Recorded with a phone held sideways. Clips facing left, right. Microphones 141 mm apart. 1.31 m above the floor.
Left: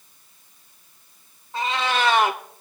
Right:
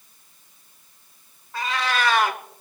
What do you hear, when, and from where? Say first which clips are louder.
1.5 s a cat meowing: left 2 dB; 25° left (ahead or behind), 1.1 m